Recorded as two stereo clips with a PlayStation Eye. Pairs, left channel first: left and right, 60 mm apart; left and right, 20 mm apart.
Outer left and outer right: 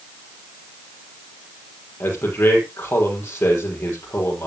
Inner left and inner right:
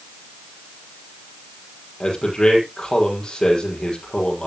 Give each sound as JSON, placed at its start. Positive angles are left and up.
{"t": 2.0, "sound": "a man speaking", "side_deg": 40, "distance_m": 5.5}